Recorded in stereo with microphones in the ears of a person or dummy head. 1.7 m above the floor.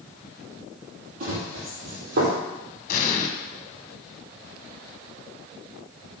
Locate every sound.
1.2 s running footsteps: 50° right (ahead or behind), 4 m; by 2.4 s 60° right (ahead or behind), 4 m
2.9 s an explosion: 45° left (ahead or behind), 1.9 m